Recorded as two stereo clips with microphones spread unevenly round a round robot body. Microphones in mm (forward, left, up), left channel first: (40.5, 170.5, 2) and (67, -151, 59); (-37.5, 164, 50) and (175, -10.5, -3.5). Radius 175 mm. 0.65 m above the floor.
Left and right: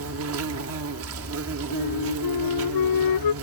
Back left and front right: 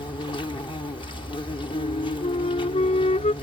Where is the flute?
75° left.